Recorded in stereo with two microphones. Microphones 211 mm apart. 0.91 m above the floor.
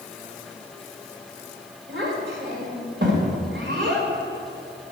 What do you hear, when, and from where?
1.9 s a child speaking: 60° right (ahead or behind), 3 m